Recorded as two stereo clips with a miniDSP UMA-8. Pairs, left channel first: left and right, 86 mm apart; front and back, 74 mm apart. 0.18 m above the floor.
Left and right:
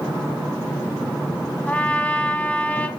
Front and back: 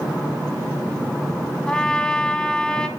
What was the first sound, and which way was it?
A trumpet, 55° left.